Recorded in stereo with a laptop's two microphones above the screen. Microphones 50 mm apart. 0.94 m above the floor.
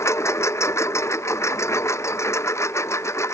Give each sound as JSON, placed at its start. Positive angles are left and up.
{"t": 0.0, "sound": "a lawn mower", "side_deg": 65}